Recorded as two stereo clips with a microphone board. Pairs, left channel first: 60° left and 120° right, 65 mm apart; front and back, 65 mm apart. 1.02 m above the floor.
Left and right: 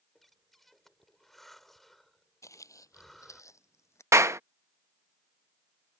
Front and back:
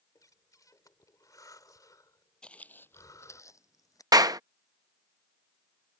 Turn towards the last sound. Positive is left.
turn(degrees=-165)